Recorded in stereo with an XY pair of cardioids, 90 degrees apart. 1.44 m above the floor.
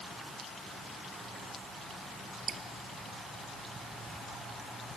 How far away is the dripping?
About 1.1 m.